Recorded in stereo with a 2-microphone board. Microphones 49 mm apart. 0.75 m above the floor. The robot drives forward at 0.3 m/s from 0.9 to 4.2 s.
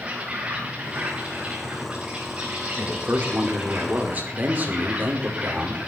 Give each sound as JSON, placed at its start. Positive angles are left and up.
{"t": 0.0, "sound": "an insect", "side_deg": -25, "distance_m": 4.5}
{"t": 2.8, "sound": "a man speaking", "side_deg": -40, "distance_m": 2.0}